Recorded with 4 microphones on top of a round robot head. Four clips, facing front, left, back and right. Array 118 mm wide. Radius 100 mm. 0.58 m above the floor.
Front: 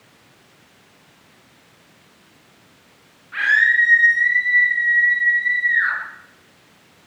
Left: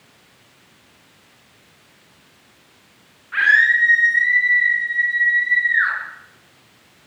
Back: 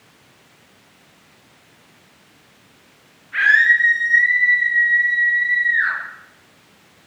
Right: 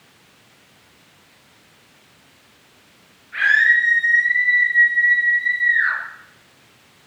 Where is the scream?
65° left, 7 m.